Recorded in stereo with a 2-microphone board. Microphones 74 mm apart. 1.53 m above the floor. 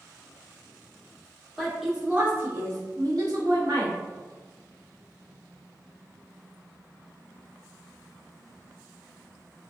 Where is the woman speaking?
Centre (ahead or behind), 1.1 m; by 4.0 s 75° right (ahead or behind), 1.3 m.